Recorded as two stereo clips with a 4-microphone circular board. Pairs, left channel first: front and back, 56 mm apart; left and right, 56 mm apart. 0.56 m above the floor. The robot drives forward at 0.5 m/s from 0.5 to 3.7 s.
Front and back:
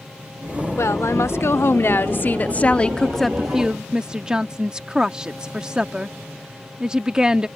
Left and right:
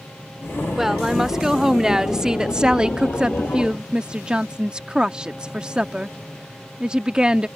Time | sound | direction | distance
0.8 | a woman speaking | 10° right | ?